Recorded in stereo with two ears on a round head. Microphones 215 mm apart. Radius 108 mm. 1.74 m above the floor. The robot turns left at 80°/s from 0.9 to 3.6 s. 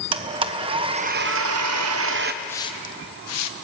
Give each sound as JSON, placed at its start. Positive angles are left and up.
{"t": 0.1, "sound": "a blender", "azimuth_deg": -25, "distance_m": 1.1}
{"t": 2.4, "sound": "a hiss", "side_deg": 5, "distance_m": 1.0}